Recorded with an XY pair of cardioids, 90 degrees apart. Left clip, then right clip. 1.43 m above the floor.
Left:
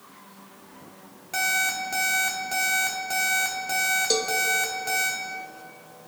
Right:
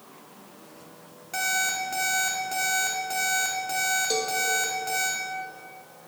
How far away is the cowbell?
About 0.9 m.